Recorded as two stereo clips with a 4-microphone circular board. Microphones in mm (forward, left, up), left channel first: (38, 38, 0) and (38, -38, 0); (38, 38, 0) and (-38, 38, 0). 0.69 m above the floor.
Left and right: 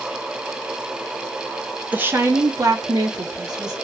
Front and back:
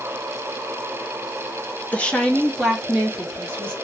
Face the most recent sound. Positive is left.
turn(degrees=-110)